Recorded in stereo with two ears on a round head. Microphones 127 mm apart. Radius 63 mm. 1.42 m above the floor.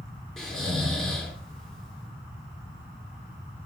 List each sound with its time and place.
0.4 s snoring: 5° left (ahead or behind), 4 m